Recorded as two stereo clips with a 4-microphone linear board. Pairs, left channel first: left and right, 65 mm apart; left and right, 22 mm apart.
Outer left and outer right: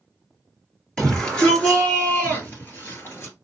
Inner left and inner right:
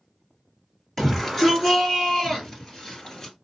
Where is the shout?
15° left (ahead or behind), 2.5 m; by 3.3 s 40° left (ahead or behind), 2.5 m.